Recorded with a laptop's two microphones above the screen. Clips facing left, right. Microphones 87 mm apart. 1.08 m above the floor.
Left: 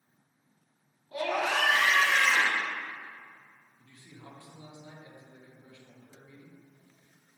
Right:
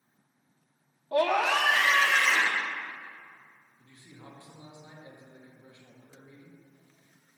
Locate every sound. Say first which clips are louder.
1.1 s a scream: right 5 dB; 60° right (ahead or behind), 0.7 m; by 2.6 s 85° right, 2.5 m
3.8 s a man speaking: even; 25° right (ahead or behind), 1.6 m